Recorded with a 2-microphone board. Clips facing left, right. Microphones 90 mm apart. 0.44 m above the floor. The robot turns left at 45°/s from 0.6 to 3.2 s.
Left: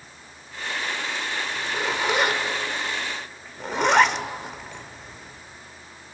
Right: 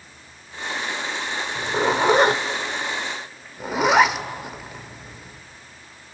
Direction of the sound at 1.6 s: 45° right (ahead or behind).